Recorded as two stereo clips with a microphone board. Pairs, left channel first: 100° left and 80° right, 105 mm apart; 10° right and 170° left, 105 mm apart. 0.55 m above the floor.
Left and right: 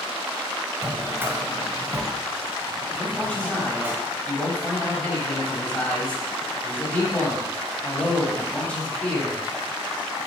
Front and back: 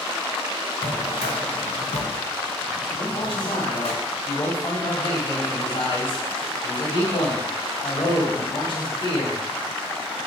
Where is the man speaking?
25° left, 3 m.